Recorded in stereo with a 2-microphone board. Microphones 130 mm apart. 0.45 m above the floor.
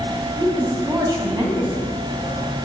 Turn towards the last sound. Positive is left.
turn(degrees=-30)  # may be behind; listen again after turning